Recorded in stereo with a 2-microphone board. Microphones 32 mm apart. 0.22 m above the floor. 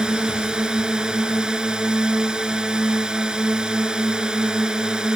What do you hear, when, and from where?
0.0 s a drone: 25° right (ahead or behind)